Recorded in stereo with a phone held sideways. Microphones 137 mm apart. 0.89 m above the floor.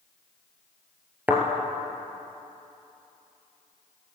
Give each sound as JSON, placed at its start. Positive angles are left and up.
{"t": 1.3, "sound": "a thud", "side_deg": -10, "distance_m": 2.0}